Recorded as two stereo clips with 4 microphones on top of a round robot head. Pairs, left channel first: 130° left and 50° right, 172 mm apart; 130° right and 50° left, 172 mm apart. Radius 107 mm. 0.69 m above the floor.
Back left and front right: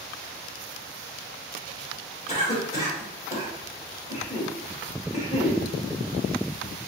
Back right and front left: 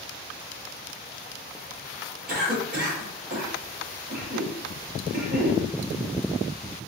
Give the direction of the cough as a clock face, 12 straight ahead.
9 o'clock.